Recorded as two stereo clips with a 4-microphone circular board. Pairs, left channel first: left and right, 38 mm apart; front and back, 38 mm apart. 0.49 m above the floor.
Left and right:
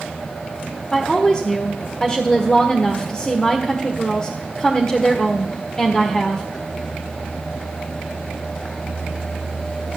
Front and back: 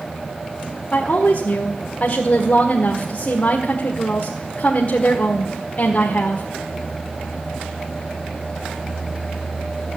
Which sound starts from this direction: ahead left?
A woman speaking, at 0.9 s.